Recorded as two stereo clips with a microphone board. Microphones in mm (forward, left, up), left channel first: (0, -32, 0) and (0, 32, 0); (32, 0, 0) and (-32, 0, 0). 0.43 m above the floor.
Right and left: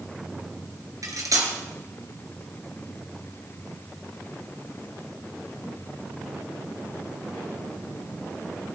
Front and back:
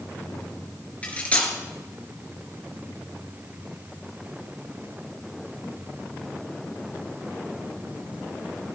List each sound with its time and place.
1.0 s cutlery clinking: 65° left, 3.5 m